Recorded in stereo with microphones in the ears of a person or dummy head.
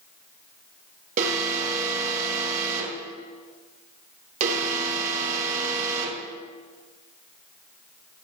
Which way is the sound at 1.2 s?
45° right (ahead or behind).